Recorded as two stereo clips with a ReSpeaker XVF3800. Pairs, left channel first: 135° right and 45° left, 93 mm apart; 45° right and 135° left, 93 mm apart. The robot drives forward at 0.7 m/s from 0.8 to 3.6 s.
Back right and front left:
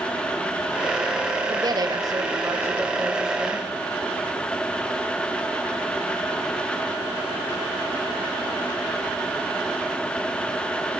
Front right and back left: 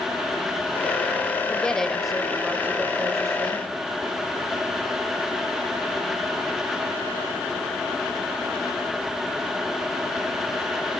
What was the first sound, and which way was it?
A woman speaking, 30° left.